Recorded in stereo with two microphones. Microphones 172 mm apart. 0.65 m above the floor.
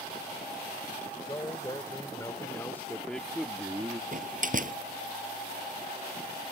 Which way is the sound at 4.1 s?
50° right (ahead or behind).